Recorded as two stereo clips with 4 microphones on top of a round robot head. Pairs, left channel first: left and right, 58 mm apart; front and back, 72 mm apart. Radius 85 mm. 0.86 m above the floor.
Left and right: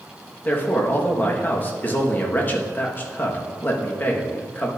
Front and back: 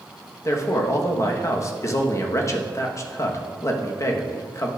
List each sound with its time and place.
0.5 s a man speaking: 35° left, 1.1 m